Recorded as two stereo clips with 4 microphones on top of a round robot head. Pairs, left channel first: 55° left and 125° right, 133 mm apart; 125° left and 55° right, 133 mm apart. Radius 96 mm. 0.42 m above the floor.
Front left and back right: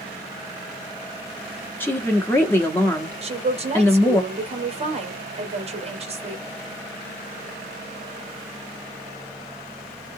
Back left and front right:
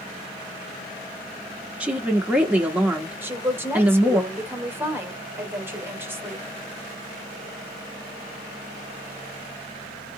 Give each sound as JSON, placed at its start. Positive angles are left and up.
{"t": 1.8, "sound": "a woman speaking", "azimuth_deg": 10, "distance_m": 0.9}
{"t": 3.2, "sound": "a woman speaking", "azimuth_deg": -125, "distance_m": 1.8}